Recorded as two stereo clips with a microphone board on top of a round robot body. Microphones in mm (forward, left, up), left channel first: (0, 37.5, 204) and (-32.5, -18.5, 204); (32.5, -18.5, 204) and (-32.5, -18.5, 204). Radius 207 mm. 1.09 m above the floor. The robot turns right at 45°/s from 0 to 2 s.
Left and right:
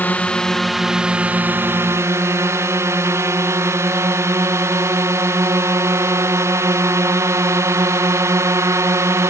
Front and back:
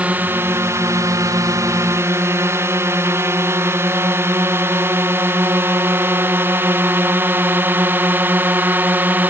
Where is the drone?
115° left; by 9.3 s 130° right.